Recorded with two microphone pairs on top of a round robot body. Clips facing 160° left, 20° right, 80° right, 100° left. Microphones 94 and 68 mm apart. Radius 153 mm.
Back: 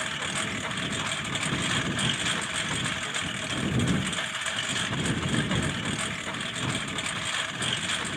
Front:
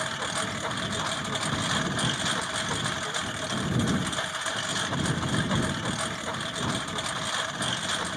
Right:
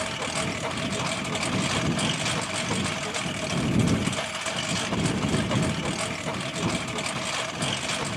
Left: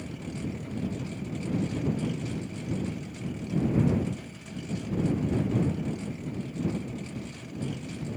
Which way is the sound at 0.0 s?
90° right.